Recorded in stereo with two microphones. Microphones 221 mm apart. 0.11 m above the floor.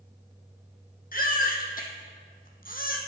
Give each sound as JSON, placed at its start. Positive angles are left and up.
{"t": 1.1, "sound": "a baby crying", "side_deg": 40, "distance_m": 1.3}